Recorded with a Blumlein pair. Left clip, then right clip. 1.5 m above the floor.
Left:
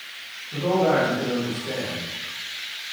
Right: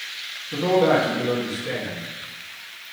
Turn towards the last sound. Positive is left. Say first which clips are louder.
# right 2 dB
turn(degrees=-65)